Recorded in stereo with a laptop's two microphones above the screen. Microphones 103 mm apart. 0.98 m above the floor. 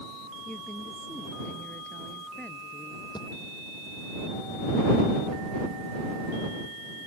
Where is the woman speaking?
15° left (ahead or behind); by 3.0 s 10° left (ahead or behind).